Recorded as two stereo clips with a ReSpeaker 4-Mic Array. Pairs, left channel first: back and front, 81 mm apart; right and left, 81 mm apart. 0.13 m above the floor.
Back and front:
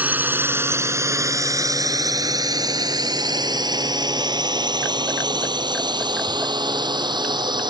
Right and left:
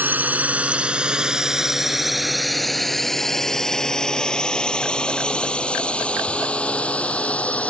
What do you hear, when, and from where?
0.0 s a drone: 50° left; by 7.7 s 15° right